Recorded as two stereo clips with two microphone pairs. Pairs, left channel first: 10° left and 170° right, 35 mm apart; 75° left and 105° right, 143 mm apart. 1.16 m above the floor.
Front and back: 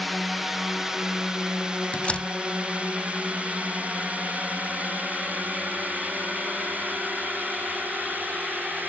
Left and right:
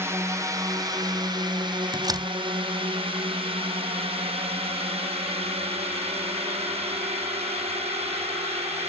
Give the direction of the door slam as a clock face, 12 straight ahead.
1 o'clock.